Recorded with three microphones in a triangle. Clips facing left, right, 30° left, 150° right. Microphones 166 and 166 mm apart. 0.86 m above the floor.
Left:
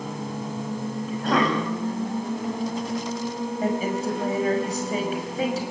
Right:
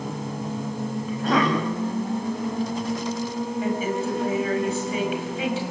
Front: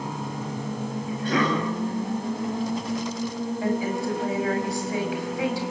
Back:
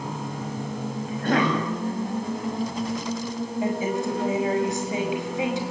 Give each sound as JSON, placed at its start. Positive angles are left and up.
{"t": 1.1, "sound": "a cough", "azimuth_deg": 180, "distance_m": 7.0}
{"t": 3.6, "sound": "a woman speaking", "azimuth_deg": 140, "distance_m": 5.5}